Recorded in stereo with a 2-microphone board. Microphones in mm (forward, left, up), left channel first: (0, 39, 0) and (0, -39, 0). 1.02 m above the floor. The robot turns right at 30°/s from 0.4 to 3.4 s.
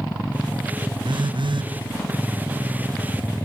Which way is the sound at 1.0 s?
70° right (ahead or behind).